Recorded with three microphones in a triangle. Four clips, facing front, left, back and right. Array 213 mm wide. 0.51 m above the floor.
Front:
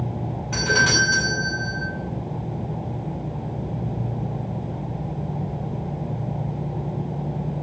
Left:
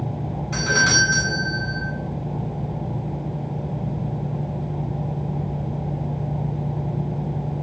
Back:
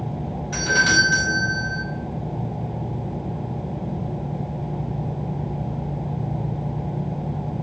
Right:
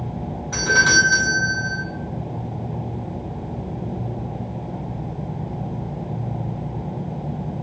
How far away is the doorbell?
About 2.5 m.